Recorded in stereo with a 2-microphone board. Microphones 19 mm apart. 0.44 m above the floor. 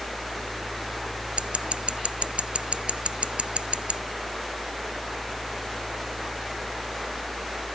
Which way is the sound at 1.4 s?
75° right (ahead or behind).